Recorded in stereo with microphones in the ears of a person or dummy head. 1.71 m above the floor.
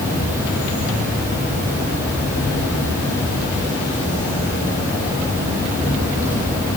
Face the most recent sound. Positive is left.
turn(degrees=-15)  # may be behind; listen again after turning